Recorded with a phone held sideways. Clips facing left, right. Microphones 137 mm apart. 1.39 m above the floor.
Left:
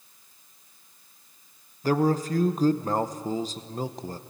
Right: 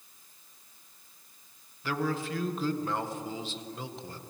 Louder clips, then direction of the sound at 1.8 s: Left 8 dB; 40° left (ahead or behind).